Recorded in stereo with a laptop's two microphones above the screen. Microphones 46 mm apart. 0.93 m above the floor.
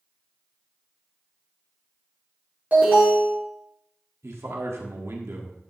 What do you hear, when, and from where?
2.7 s an alarm: 35° right (ahead or behind), 5 m
4.2 s a man speaking: 70° right (ahead or behind), 1.5 m